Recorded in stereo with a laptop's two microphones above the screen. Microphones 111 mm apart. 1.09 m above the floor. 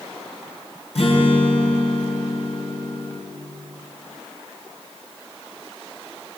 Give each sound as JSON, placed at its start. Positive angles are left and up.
{"t": 0.9, "sound": "a guitar", "side_deg": 65, "distance_m": 6.5}